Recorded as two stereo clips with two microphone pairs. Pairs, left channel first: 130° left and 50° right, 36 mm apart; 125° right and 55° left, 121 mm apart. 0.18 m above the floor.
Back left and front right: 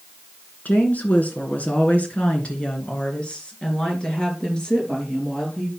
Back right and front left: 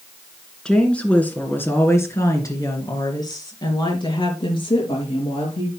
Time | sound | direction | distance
0.7 | a woman speaking | 155° left | 2.5 m